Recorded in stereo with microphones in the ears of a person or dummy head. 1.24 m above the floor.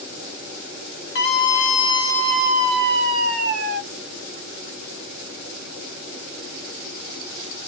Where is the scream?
50° left (ahead or behind), 0.8 m; by 3.8 s 55° right (ahead or behind), 1.0 m.